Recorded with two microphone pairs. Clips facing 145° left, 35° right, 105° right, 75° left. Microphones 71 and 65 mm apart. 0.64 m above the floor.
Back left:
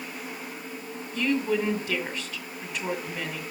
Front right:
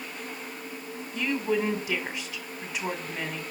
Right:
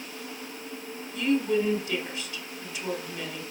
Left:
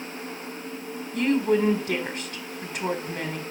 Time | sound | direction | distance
1.1 | a woman speaking | 45° left | 1.8 m